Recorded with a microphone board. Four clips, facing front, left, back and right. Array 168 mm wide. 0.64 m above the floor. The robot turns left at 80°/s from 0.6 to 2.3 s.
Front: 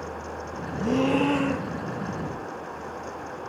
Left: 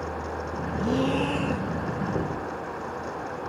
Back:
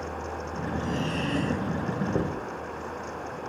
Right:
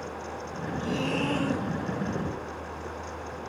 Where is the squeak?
No squeak in this recording.